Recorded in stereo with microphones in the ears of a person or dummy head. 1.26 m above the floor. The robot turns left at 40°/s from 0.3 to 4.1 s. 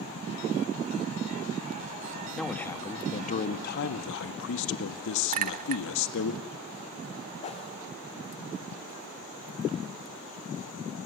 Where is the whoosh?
35° left (ahead or behind), 2.5 m.